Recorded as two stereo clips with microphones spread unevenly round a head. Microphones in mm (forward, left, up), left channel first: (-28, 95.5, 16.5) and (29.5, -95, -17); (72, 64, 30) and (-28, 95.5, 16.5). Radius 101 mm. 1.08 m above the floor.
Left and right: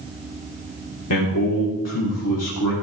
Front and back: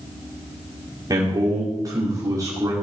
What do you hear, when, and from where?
1.1 s a man speaking: 105° left, 3 m